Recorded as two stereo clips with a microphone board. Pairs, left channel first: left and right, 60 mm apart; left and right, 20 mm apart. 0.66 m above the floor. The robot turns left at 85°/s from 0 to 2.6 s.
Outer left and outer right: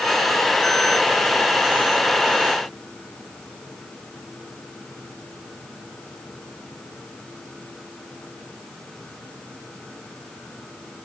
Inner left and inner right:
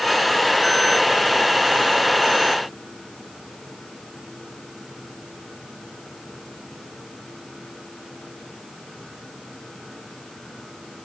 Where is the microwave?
I don't hear a microwave.